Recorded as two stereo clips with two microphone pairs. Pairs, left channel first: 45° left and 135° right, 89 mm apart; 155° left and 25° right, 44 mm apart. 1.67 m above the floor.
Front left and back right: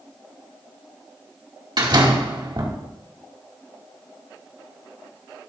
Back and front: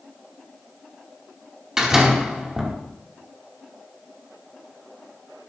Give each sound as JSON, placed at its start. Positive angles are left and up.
{"t": 1.8, "sound": "a door slam", "azimuth_deg": -105, "distance_m": 2.5}